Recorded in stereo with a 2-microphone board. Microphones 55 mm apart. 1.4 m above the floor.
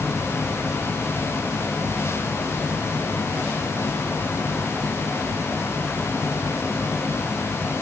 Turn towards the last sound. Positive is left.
No sound to turn to.